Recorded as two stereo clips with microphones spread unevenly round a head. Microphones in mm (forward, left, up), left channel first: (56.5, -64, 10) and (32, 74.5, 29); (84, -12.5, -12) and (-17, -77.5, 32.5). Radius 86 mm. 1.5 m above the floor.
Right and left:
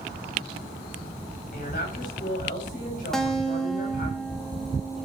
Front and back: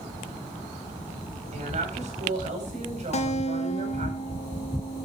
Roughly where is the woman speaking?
Behind right.